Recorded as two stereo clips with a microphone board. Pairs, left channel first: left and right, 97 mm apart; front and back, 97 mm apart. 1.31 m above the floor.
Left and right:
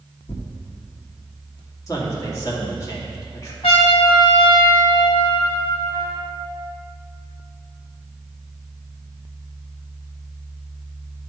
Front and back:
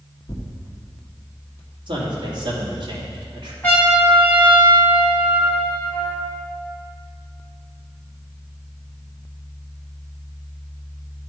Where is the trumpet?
70° left, 2 m.